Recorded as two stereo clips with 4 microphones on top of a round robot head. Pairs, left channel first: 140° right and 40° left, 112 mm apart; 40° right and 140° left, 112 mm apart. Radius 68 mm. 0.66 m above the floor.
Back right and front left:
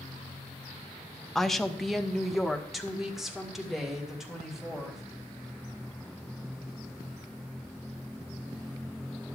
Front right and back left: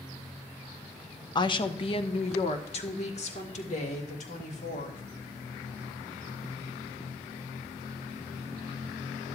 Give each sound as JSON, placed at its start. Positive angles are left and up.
{"t": 1.4, "sound": "a woman speaking", "azimuth_deg": -50, "distance_m": 0.7}